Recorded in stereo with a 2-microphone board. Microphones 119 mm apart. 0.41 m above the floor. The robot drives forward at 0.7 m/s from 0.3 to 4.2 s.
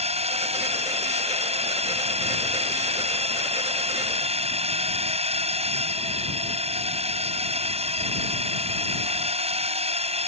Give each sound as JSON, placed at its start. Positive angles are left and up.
{"t": 0.0, "sound": "a drone", "side_deg": -60}